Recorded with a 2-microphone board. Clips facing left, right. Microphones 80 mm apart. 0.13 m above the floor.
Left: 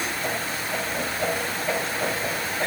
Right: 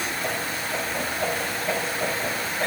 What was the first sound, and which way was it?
Only background noise.